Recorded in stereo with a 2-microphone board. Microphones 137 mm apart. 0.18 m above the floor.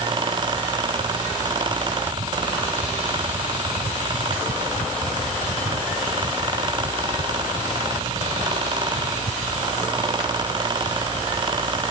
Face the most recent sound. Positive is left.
No sound to turn to.